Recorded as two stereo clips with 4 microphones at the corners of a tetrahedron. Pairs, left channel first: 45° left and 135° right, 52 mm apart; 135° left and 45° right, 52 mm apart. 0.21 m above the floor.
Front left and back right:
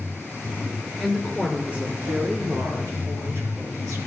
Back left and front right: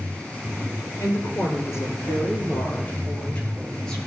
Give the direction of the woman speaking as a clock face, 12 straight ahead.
7 o'clock.